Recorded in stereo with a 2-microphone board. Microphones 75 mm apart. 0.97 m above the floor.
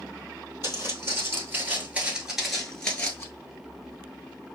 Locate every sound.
0.6 s footsteps: 35° right (ahead or behind), 1.6 m; by 3.3 s 20° left (ahead or behind), 1.1 m